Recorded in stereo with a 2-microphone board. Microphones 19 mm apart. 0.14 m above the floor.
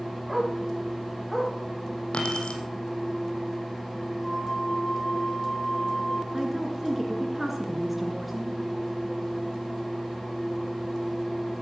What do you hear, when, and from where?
0.3 s a dog barking: 10° left (ahead or behind), 8.5 m; by 1.5 s 15° left (ahead or behind), 9 m
2.1 s keys jangling: 75° left (ahead or behind), 3.5 m
4.2 s a flute: 15° left (ahead or behind), 3.5 m
6.3 s a woman speaking: 5° right (ahead or behind), 2.0 m